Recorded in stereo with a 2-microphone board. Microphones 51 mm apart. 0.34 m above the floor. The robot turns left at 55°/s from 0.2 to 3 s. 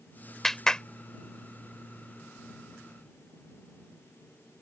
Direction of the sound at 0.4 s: 5° left (ahead or behind).